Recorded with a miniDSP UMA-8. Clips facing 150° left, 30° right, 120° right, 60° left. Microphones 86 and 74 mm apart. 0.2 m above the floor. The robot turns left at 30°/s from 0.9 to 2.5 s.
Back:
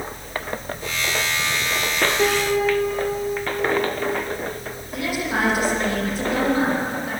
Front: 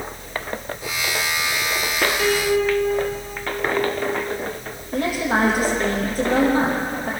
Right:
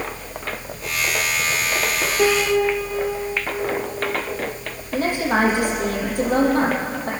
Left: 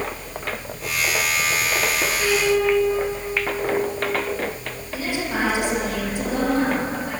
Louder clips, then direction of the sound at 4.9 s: Front 4 dB, right 6 dB; 80° right.